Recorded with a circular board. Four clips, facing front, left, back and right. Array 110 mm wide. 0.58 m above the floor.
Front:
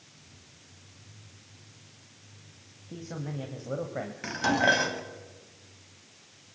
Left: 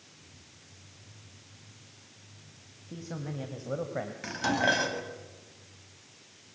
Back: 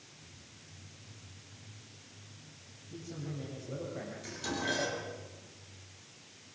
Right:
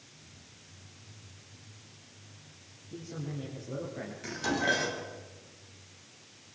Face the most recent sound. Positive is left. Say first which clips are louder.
# left 2 dB, front 13 dB
turn(degrees=25)